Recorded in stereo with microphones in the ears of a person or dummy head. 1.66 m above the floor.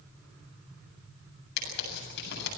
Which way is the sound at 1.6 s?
65° left (ahead or behind).